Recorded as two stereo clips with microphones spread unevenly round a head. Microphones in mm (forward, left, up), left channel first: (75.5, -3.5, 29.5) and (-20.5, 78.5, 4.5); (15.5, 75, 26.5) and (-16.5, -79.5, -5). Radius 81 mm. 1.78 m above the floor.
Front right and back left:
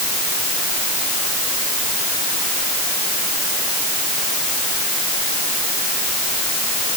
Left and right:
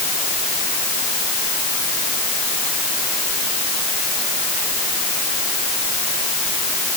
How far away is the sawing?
I don't hear sawing.